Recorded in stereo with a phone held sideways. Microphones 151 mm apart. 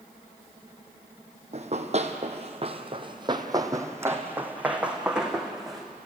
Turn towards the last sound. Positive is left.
turn(degrees=0)  # may be behind; listen again after turning